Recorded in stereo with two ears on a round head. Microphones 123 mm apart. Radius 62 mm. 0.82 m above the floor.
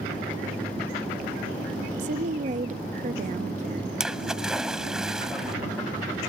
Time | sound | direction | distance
2.0 | a woman speaking | 55° right (ahead or behind) | ?
4.0 | a splash | 5° right (ahead or behind) | ?